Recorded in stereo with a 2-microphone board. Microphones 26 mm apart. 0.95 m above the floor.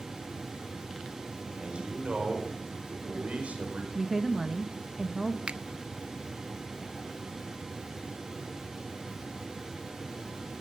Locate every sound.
1.6 s a man speaking: 45° right (ahead or behind), 4.5 m; by 3.8 s 65° right (ahead or behind), 5 m
3.9 s a woman speaking: 20° right (ahead or behind), 0.9 m
5.5 s a finger snap: 45° right (ahead or behind), 0.5 m